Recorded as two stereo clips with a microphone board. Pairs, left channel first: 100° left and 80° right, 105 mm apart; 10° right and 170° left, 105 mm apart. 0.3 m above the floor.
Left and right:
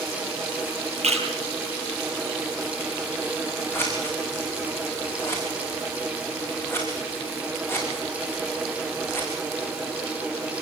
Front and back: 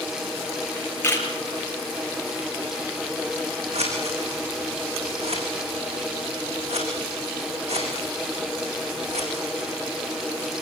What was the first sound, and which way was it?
A camera shutter, 80° right.